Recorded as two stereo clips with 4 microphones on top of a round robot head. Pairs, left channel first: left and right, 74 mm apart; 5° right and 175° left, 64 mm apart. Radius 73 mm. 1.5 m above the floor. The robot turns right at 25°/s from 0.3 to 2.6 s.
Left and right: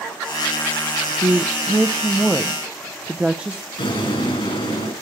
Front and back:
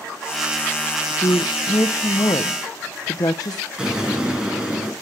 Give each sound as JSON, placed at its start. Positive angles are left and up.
{"t": 1.2, "sound": "a woman speaking", "azimuth_deg": -45, "distance_m": 0.5}
{"t": 3.8, "sound": "an explosion", "azimuth_deg": 95, "distance_m": 8.0}